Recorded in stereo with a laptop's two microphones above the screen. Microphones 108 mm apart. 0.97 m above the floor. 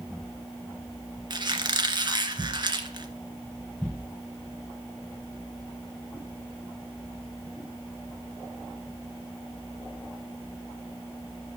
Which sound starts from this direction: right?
A squeak, at 1.3 s.